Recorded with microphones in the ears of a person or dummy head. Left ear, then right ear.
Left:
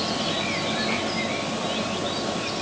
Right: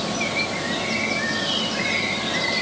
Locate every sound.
Only background noise.